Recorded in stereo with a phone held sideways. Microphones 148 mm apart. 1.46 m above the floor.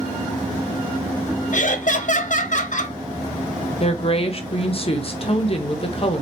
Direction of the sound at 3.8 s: 40° left (ahead or behind).